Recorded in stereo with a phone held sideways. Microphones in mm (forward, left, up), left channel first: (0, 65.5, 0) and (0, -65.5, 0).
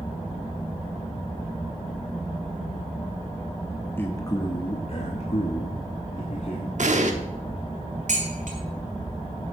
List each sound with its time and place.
4.0 s a man speaking: 15° left (ahead or behind), 0.9 m; by 6.7 s 70° left (ahead or behind), 1.8 m
6.8 s an explosion: 65° right (ahead or behind), 1.1 m
8.1 s dishes clattering: 70° right (ahead or behind), 2.5 m